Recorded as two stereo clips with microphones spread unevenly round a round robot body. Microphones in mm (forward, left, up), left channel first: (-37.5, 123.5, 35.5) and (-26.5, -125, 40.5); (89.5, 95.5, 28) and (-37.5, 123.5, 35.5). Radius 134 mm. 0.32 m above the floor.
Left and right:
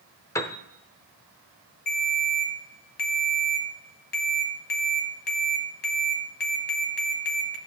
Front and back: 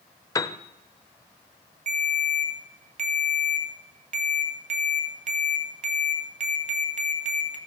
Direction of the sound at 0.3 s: 25° left.